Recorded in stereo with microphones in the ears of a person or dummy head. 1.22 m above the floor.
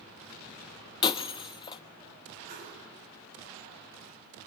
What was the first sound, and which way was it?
Breaking glass, 35° left (ahead or behind).